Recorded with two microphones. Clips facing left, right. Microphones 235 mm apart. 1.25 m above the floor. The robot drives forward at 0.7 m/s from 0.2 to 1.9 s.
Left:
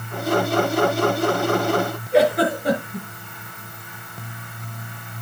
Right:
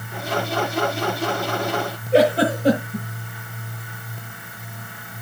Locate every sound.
2.1 s a giggle: 30° right (ahead or behind), 9.5 m